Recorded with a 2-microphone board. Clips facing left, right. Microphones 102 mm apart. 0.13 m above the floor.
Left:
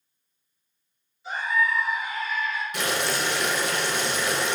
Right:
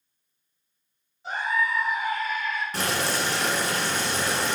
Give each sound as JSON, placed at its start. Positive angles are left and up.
{"t": 1.2, "sound": "a scream", "side_deg": -40, "distance_m": 1.9}
{"t": 2.7, "sound": "boiling", "side_deg": -35, "distance_m": 1.1}